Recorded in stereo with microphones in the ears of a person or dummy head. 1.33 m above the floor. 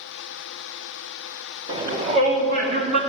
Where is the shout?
30° right (ahead or behind), 1.9 m; by 3.0 s 60° right (ahead or behind), 2.5 m.